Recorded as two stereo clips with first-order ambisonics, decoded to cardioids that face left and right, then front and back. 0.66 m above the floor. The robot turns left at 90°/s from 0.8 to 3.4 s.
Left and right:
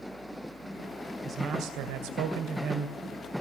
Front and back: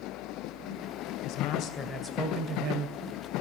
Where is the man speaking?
10° right, 2.5 m; by 3.0 s 165° right, 2.5 m.